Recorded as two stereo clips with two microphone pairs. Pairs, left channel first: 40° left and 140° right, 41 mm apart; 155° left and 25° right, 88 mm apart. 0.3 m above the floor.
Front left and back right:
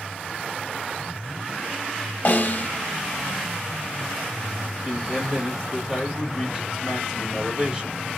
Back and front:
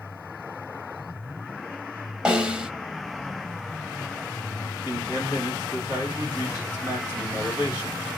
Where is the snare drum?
50° left, 0.8 m.